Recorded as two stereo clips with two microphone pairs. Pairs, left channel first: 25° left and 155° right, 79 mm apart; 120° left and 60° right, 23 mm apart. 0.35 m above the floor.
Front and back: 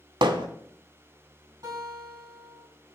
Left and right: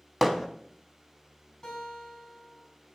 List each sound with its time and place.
0.2 s hammering: 150° right, 0.7 m
1.6 s a guitar: 175° left, 3.5 m